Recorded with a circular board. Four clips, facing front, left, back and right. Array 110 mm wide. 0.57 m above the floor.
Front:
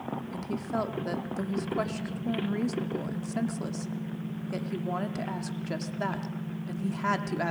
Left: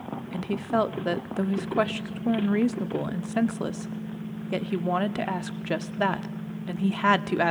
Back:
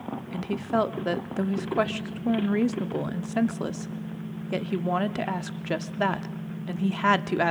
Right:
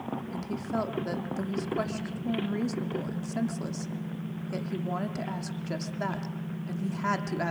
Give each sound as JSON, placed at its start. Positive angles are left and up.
{"t": 0.3, "sound": "a woman speaking", "azimuth_deg": 135, "distance_m": 0.9}